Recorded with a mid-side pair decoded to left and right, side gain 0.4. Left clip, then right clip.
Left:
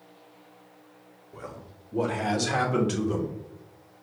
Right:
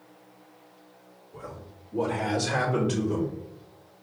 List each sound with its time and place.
1.3 s a man speaking: 55° left, 1.3 m; by 3.4 s 40° left, 2.5 m